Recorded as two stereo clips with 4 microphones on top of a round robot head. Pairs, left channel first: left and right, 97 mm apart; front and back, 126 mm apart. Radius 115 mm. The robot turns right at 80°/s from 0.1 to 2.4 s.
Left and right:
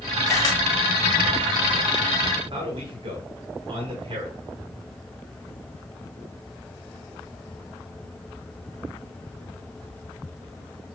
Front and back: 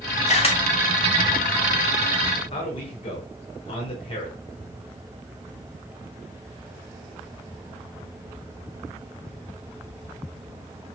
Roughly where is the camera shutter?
Ahead.